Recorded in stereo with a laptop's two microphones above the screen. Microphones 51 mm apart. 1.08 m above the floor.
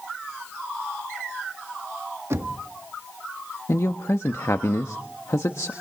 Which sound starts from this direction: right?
Knocking, at 2.3 s.